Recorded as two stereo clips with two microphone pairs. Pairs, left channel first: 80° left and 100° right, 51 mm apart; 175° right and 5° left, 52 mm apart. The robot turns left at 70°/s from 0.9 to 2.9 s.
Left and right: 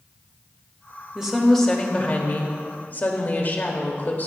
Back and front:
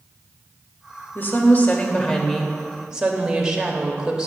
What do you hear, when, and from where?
1.1 s a woman speaking: 170° right, 1.0 m; by 4.3 s 70° left, 1.0 m